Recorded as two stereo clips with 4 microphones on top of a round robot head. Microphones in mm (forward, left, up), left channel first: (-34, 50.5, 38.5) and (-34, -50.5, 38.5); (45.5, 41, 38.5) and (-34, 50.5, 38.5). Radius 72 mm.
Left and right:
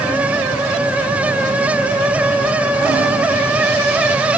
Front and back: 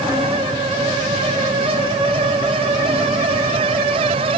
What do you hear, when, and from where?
Only background noise.